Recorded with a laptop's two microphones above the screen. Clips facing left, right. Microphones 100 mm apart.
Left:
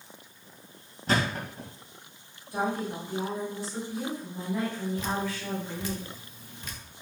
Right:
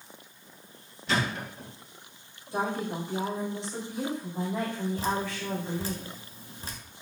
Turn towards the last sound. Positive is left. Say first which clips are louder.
# right 1 dB
turn(degrees=-35)  # may be behind; listen again after turning